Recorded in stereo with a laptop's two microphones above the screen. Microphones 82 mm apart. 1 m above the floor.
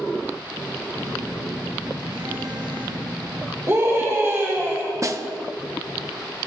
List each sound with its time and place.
0.9 s a phone buzzing: 70° right (ahead or behind), 1.4 m
3.7 s a scream: 35° right (ahead or behind), 3.5 m
5.0 s a snare drum: 40° right (ahead or behind), 0.6 m